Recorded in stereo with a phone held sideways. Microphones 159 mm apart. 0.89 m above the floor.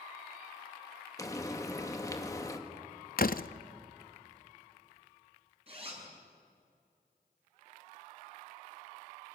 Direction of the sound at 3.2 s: 65° left (ahead or behind).